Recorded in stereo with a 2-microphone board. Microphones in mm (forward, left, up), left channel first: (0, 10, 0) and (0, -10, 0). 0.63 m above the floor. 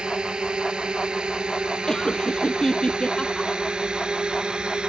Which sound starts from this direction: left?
Laughter, at 1.9 s.